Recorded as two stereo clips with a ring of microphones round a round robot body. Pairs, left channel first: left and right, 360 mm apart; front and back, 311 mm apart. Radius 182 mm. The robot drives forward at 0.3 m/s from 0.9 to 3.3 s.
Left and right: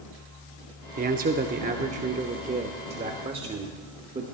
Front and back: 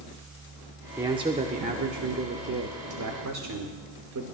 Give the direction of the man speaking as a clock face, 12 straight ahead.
4 o'clock.